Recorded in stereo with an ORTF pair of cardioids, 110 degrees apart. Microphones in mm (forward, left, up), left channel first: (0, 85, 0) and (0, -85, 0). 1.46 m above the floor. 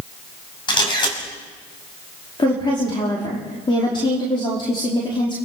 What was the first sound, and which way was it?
A camera shutter, 25° left.